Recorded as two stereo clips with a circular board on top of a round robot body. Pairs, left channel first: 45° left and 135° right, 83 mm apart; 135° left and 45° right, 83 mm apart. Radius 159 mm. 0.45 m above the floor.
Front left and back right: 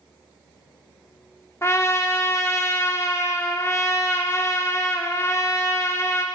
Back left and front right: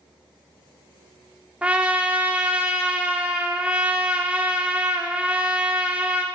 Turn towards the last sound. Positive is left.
turn(degrees=20)